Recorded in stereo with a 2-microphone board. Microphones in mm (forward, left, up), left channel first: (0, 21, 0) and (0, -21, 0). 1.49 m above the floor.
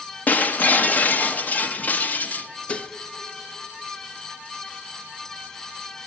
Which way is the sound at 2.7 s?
30° left (ahead or behind).